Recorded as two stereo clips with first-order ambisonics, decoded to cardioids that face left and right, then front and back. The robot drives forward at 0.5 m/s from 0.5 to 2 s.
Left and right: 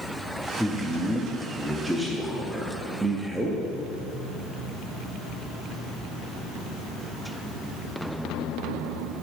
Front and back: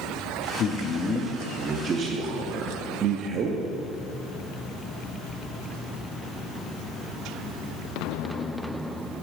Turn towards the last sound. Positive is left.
turn(degrees=-175)